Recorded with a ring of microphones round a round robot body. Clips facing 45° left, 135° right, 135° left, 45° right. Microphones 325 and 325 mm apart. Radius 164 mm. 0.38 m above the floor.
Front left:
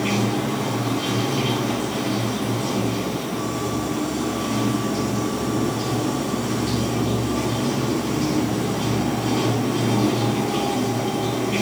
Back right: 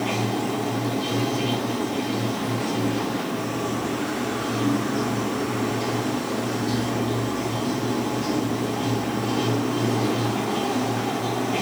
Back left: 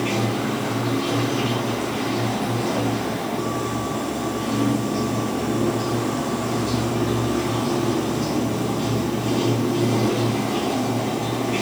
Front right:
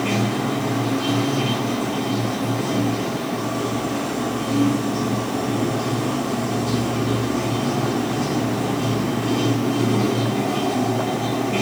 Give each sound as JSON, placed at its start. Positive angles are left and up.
{"t": 0.0, "sound": "running water", "azimuth_deg": 45, "distance_m": 4.0}